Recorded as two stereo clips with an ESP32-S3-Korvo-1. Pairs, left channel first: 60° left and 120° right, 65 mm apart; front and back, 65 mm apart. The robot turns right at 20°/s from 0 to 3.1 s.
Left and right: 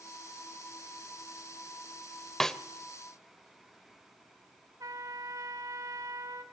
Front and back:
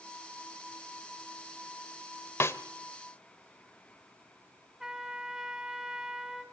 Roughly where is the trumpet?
Right.